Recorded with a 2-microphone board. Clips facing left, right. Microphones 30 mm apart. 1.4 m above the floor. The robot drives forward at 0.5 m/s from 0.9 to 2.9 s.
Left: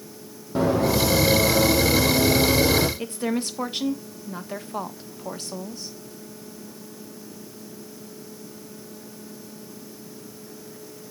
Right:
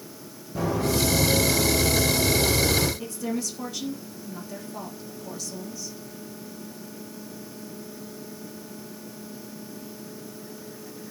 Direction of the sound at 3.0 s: 45° left (ahead or behind).